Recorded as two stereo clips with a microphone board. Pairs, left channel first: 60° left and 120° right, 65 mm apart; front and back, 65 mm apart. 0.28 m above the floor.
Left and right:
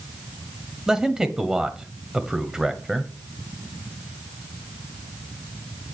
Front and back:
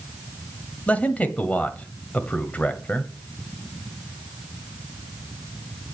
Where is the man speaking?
50° right, 1.1 m.